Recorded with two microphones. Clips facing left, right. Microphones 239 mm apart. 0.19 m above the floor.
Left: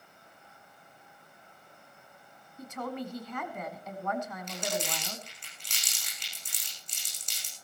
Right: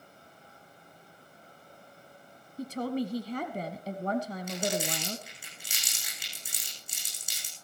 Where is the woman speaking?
35° right (ahead or behind), 1.4 m.